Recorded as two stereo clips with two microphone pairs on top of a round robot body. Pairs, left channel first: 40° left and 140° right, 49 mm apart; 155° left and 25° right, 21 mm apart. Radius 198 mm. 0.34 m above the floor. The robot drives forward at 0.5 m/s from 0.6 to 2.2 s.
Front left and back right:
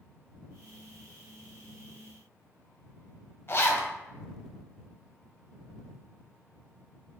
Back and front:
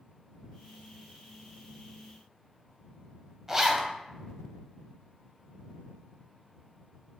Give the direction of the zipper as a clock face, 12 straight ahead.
11 o'clock.